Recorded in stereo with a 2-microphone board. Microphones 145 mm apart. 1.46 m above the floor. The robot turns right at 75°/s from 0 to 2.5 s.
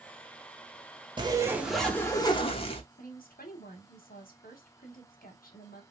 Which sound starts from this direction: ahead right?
A zipper, at 1.2 s.